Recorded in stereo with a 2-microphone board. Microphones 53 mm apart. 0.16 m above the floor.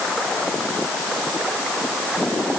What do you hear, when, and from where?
Only background noise.